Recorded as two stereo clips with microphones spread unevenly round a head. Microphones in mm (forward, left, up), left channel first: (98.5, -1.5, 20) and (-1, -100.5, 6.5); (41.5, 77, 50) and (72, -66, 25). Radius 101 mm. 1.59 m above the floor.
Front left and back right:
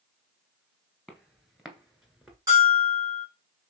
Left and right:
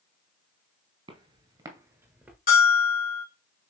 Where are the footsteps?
40° right, 1.8 m; by 2.4 s 40° left, 1.5 m.